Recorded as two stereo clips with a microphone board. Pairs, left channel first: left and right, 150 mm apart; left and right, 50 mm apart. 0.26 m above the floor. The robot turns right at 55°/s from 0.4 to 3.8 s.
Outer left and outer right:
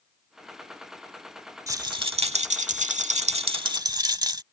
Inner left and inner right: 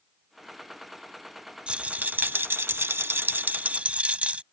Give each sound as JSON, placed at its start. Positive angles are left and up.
{"t": 1.7, "sound": "a rattle", "azimuth_deg": -150}